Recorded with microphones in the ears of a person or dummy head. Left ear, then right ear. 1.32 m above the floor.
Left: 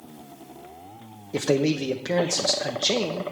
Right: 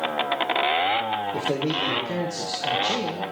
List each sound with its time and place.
1.3 s a man speaking: 65° left (ahead or behind), 0.8 m